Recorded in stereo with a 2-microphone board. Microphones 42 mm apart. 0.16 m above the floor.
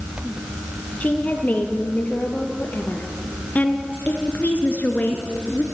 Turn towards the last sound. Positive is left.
turn(degrees=35)  # may be behind; listen again after turning